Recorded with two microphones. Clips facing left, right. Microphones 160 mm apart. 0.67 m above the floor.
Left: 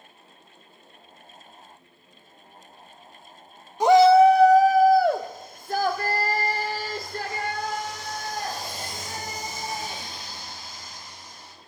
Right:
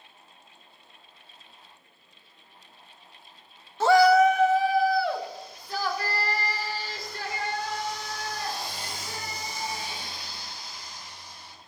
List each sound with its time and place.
3.8 s a shout: 15° left (ahead or behind), 0.5 m; by 11.5 s 45° left (ahead or behind), 4.5 m